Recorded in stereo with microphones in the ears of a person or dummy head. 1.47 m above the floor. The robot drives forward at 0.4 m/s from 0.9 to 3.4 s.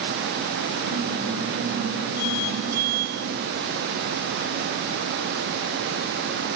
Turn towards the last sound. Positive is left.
No sound to turn to.